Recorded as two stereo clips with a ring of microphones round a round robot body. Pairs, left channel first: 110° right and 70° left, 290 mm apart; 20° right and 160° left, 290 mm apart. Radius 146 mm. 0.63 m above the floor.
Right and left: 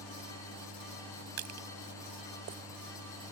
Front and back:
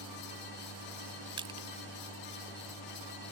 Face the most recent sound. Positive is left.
turn(degrees=85)